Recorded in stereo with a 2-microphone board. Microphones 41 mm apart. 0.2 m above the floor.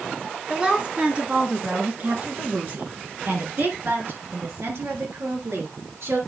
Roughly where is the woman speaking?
Centre.